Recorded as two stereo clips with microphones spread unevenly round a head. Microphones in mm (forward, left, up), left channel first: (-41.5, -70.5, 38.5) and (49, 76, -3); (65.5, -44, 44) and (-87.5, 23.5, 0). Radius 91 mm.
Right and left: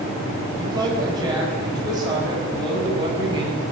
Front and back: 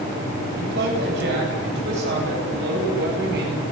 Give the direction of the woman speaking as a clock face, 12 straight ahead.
8 o'clock.